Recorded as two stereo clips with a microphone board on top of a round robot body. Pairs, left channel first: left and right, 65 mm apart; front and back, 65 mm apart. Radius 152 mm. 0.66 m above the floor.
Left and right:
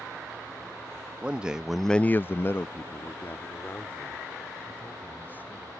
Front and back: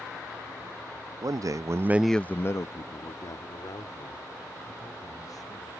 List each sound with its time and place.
1.2 s a man speaking: 165° right; by 5.7 s 25° left